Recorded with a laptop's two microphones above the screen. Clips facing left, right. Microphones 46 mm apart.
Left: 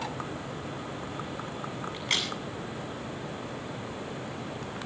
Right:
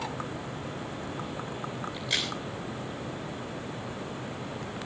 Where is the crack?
55° left (ahead or behind), 9 m.